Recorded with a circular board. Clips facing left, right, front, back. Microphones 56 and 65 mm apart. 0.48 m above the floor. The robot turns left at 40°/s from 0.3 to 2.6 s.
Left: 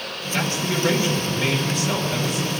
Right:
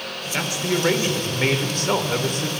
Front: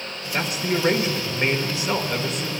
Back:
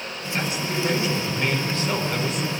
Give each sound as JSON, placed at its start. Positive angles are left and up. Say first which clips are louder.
{"t": 0.3, "sound": "a man speaking", "louder": "even, front 2 dB", "azimuth_deg": -10, "distance_m": 1.3}